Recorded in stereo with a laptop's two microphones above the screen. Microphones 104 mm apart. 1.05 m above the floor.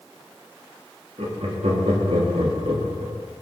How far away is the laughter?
About 2 m.